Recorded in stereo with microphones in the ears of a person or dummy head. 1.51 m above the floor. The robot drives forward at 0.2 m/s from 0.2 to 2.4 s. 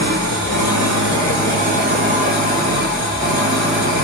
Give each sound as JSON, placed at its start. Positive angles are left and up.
{"t": 0.0, "sound": "an engine running", "side_deg": -50, "distance_m": 1.8}